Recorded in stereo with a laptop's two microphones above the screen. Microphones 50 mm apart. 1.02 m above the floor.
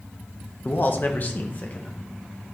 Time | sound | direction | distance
0.7 | a man speaking | 45° left (ahead or behind) | 1.1 m